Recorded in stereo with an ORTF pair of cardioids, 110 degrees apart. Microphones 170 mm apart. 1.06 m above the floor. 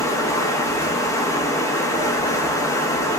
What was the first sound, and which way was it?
Running water, 20° left.